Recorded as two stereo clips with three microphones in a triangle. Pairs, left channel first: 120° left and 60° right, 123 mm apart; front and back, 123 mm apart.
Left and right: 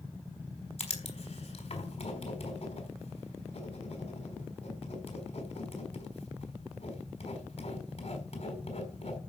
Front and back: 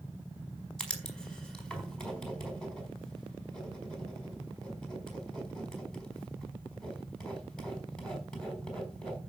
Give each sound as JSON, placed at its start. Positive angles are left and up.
{"t": 0.8, "sound": "writing", "azimuth_deg": 85, "distance_m": 5.0}